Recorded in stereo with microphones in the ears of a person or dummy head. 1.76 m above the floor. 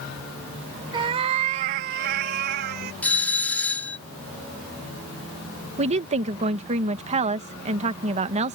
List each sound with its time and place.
0.9 s a cat meowing: 25° right (ahead or behind); by 2.9 s 45° right (ahead or behind)
3.0 s a doorbell: 10° left (ahead or behind)
5.8 s a woman speaking: 30° right (ahead or behind)